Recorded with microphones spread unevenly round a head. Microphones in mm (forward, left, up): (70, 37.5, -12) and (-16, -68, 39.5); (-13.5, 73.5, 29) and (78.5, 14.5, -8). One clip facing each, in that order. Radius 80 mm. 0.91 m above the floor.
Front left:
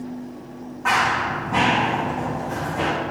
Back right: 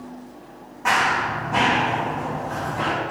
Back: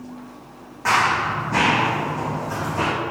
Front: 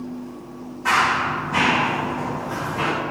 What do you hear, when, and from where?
0.8 s running footsteps: 165° left, 3 m; by 2.9 s 120° left, 3 m